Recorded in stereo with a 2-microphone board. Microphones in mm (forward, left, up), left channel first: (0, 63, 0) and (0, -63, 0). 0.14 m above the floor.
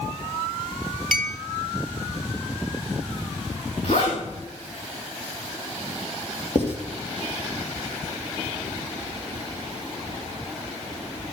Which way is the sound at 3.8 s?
55° left (ahead or behind).